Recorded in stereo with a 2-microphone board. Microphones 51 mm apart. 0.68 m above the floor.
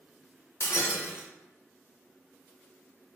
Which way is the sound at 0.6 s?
55° left (ahead or behind).